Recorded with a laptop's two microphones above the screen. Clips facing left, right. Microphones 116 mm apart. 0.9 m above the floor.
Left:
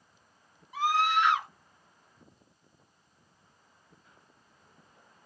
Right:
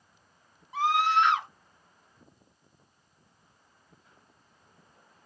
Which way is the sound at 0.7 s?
30° right (ahead or behind).